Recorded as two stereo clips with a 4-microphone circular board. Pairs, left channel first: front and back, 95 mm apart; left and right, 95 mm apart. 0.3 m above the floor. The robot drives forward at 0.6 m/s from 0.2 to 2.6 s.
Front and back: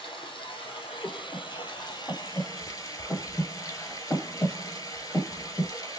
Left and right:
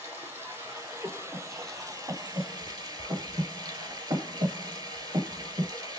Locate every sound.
0.0 s running water: 20° right, 2.5 m; by 6.0 s 50° right, 1.2 m
1.0 s breathing: 45° right, 1.8 m; by 5.7 s 80° right, 1.4 m